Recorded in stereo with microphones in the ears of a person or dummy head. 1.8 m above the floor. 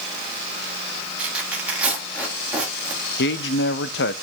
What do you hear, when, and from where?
1.2 s tearing paper: 10° right (ahead or behind), 4.5 m
3.2 s a man speaking: 65° left (ahead or behind), 0.6 m